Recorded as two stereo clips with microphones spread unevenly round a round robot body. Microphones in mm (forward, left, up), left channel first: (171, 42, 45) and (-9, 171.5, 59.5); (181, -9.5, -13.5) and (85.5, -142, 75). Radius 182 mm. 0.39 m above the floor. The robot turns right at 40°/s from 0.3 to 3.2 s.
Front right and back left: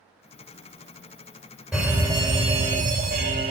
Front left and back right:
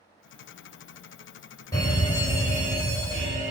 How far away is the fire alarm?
About 3 m.